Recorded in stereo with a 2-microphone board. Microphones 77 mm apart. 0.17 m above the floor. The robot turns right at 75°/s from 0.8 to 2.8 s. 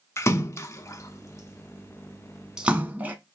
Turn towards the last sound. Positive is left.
turn(degrees=-20)  # may be behind; listen again after turning